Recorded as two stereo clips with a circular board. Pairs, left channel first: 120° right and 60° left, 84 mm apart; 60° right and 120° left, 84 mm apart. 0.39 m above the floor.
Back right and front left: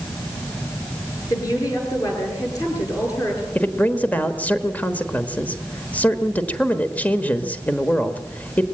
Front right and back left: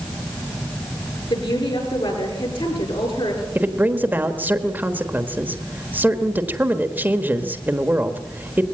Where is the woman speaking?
75° right, 7.5 m.